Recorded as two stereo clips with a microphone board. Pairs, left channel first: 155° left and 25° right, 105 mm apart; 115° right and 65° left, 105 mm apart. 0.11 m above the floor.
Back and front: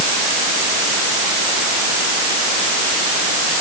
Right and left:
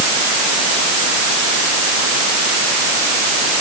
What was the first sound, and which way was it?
Only background noise.